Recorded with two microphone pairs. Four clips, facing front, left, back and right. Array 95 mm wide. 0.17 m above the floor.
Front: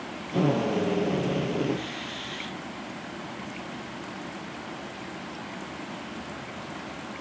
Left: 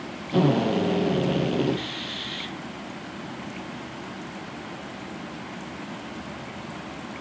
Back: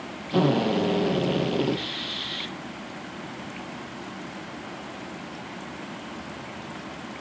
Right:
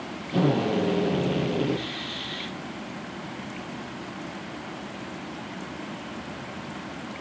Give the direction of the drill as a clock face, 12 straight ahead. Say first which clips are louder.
Left 2 dB, back 3 dB; 7 o'clock.